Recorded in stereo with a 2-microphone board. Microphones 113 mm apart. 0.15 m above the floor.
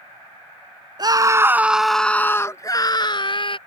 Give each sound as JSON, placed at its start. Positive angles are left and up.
{"t": 1.0, "sound": "a scream", "side_deg": -40}